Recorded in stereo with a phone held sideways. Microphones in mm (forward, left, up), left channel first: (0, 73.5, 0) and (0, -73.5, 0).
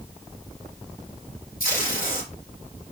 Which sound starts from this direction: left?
Tape being pulled, at 1.6 s.